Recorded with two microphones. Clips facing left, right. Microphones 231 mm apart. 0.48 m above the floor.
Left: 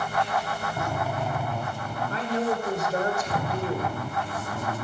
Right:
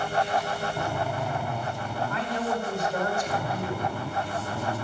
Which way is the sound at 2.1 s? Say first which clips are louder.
Left 4 dB; 35° left (ahead or behind).